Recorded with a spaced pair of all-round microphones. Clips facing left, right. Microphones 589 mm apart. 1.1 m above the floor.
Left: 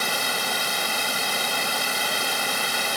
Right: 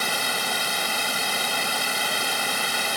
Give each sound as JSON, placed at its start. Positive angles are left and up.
{"t": 0.0, "sound": "running water", "side_deg": 0}